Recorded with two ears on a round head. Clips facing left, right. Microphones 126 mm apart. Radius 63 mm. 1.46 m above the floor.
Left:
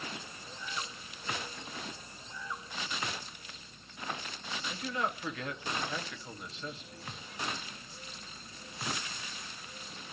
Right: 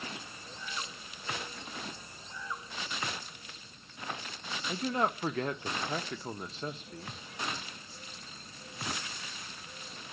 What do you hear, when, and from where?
4.7 s a man speaking: 30° right (ahead or behind), 1.4 m